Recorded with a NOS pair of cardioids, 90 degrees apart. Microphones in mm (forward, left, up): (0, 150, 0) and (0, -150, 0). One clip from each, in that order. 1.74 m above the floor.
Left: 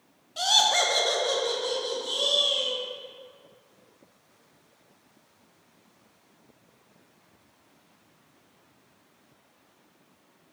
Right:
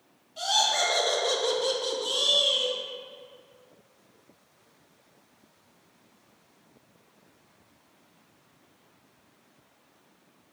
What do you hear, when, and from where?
0.4 s laughter: 40° left, 0.7 m; by 2.8 s 65° right, 1.0 m